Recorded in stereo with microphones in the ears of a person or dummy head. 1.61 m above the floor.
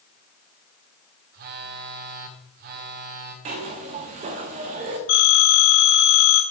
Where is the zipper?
45° right (ahead or behind), 1.0 m.